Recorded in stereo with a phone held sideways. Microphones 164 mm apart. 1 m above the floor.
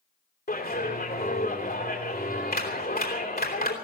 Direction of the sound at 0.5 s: 70° left (ahead or behind).